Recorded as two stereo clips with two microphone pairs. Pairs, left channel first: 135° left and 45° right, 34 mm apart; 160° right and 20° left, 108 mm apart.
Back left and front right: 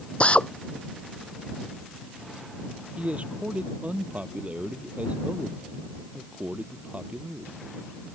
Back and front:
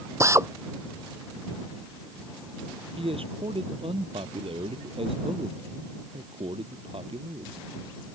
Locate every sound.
0.2 s a drill: 80° left
3.0 s a man speaking: 5° right